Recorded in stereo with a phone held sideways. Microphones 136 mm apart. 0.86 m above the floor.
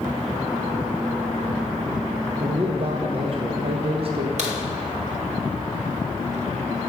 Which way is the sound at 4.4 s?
60° right (ahead or behind).